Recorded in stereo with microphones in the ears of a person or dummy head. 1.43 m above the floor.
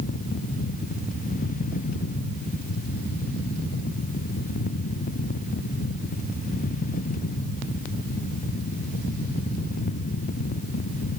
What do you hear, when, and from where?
Only background noise.